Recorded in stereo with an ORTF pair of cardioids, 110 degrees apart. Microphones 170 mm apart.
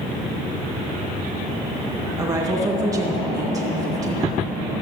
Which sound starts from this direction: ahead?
A woman speaking, at 2.2 s.